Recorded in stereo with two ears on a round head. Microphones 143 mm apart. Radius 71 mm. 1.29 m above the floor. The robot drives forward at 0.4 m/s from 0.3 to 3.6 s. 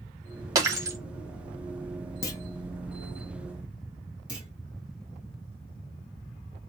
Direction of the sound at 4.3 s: 5° right (ahead or behind).